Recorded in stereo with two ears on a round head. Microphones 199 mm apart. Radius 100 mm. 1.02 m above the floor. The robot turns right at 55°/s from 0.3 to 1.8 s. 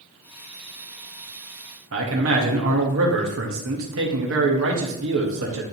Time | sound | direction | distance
1.9 | a man speaking | 60° right (ahead or behind) | 1.6 m